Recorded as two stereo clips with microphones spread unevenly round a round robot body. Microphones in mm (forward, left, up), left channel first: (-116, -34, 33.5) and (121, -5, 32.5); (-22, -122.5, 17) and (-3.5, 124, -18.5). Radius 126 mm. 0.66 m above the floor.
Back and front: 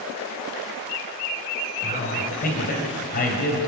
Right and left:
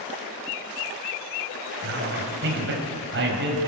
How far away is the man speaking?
About 3.5 m.